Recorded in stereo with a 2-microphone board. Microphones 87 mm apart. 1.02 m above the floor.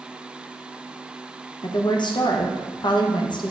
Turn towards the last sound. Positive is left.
turn(degrees=60)  # may be behind; listen again after turning